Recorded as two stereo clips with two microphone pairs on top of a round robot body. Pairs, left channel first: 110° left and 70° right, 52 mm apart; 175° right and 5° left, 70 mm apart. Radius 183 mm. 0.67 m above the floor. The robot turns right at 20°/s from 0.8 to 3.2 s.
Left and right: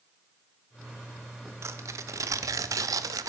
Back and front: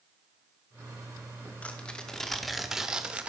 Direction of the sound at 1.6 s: 105° right.